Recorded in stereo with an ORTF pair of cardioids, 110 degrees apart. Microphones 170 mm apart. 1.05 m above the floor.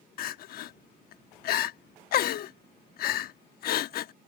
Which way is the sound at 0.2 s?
65° left.